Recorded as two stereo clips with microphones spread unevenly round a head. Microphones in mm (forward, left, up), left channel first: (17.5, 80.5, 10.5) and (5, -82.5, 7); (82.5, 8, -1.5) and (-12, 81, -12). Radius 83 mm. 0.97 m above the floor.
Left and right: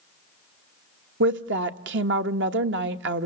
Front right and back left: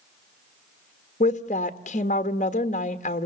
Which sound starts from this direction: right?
A woman speaking, at 1.2 s.